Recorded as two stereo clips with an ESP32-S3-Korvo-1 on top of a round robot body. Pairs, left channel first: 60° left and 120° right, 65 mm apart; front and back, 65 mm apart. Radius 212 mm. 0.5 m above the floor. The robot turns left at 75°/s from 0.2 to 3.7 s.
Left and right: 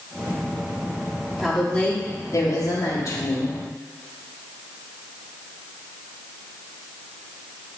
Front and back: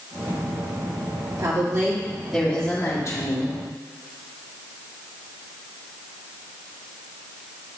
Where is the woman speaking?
160° left, 2.5 m; by 3.5 s straight ahead, 2.5 m.